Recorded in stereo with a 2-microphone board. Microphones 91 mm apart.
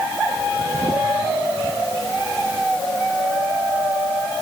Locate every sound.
Only background noise.